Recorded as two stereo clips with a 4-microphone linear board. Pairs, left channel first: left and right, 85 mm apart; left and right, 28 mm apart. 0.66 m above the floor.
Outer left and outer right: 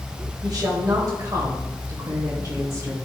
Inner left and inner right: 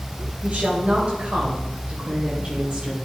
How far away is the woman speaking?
About 3.5 m.